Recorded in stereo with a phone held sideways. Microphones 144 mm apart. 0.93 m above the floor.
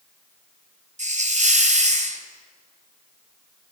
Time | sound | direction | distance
1.0 | a hiss | 55° right (ahead or behind) | 2.5 m